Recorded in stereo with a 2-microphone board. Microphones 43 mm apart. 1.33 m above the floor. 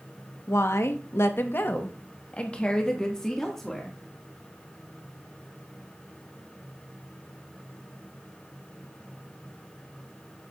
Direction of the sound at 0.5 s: 80° left.